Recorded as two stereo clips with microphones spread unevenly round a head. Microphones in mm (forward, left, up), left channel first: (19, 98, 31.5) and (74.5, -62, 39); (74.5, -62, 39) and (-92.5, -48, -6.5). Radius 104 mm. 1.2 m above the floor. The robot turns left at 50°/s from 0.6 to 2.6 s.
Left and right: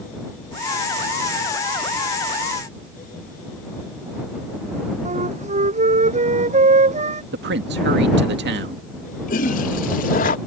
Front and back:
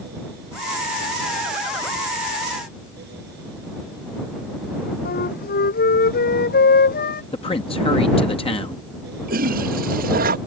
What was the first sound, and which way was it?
A flute, 25° right.